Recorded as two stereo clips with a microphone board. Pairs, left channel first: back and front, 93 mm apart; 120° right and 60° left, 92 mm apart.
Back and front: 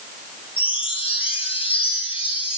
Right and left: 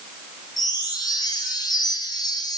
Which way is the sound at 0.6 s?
165° right.